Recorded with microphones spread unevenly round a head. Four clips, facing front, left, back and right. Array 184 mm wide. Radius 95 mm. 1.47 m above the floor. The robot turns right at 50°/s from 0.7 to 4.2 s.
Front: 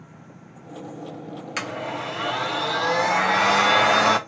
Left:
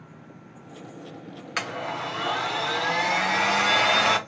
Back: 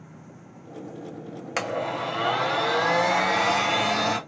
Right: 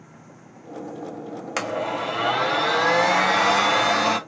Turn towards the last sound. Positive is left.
turn(degrees=0)